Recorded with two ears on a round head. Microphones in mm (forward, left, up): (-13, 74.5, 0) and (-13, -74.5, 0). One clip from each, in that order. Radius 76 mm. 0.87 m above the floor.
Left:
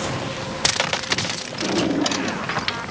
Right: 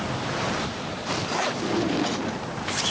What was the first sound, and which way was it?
A drawer, 75° left (ahead or behind).